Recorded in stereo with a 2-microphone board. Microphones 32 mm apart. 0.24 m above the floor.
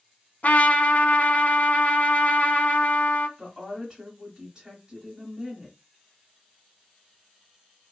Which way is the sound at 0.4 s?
55° left (ahead or behind).